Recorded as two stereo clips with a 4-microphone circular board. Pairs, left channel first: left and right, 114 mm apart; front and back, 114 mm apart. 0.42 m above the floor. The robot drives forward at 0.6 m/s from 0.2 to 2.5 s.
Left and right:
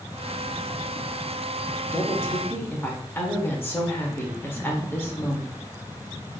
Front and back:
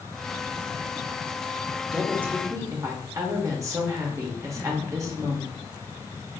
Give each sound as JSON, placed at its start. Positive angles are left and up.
{"t": 1.9, "sound": "a woman speaking", "azimuth_deg": 95, "distance_m": 0.7}